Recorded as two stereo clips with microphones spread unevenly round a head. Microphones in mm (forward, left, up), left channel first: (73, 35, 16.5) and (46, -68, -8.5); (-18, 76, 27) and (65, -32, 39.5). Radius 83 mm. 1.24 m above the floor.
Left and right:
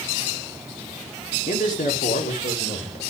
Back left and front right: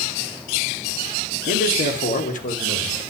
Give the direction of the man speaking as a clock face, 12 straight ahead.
9 o'clock.